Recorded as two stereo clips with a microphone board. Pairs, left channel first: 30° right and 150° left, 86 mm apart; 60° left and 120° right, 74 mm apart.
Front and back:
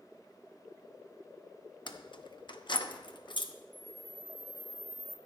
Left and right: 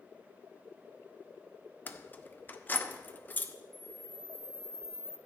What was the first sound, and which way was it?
Keys jangling, 5° right.